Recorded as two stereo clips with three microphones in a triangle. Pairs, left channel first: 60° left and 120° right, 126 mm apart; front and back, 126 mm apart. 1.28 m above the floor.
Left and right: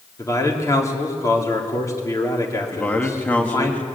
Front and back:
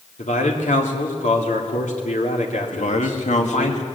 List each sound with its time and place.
0.2 s a man speaking: 5° right, 3.5 m
2.7 s a man speaking: 20° right, 1.9 m